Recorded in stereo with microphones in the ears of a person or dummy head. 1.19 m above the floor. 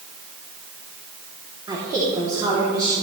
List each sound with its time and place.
1.7 s a woman speaking: 20° right (ahead or behind), 3 m